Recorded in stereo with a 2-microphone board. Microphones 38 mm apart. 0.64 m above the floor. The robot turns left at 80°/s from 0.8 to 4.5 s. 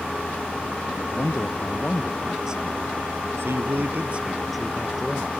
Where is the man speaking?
90° left; by 5.3 s straight behind.